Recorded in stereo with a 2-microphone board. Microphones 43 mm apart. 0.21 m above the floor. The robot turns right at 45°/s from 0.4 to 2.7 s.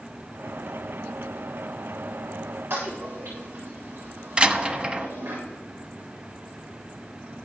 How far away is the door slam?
About 0.9 m.